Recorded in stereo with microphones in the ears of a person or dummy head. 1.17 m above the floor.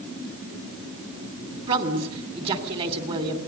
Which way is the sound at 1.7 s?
35° right (ahead or behind).